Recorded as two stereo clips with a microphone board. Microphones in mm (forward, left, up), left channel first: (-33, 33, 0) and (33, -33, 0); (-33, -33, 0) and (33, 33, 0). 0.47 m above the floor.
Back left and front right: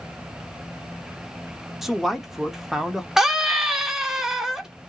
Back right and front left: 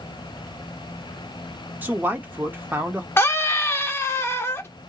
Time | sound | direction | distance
1.8 | a man speaking | 35° left | 0.7 m
3.2 | a scream | 120° right | 0.7 m